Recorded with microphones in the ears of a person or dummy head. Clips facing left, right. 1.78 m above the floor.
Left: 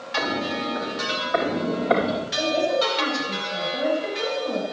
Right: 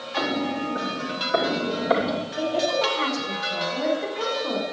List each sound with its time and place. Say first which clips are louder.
0.2 s footsteps: right 1 dB; 60° right (ahead or behind), 3.5 m; by 2.3 s 10° right (ahead or behind), 3 m
2.4 s a woman speaking: left 2 dB; 65° right (ahead or behind), 6.5 m